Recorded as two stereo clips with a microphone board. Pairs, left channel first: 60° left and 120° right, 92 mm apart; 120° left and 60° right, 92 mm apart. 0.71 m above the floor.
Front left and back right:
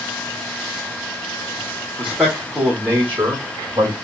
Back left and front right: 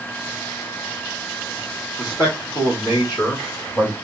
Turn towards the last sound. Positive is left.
turn(degrees=-175)